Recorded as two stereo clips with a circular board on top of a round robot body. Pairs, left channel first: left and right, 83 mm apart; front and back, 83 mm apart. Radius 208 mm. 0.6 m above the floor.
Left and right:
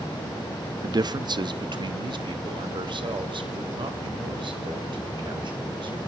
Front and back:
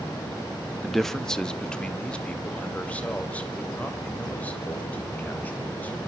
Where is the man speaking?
90° right, 1.4 m; by 6.0 s 70° right, 6.5 m.